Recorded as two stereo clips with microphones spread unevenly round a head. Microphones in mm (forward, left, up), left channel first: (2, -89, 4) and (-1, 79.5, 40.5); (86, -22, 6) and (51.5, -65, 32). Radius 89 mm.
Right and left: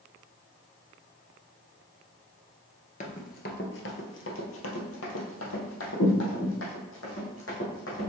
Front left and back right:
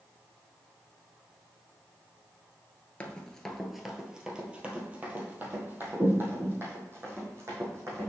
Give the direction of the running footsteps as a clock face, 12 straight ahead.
1 o'clock.